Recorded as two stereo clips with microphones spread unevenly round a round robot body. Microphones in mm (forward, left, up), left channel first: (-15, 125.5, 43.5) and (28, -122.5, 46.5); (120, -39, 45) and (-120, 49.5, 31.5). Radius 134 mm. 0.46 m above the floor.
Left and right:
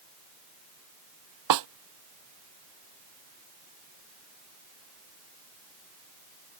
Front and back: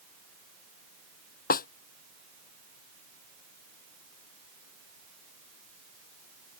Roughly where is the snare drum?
Right.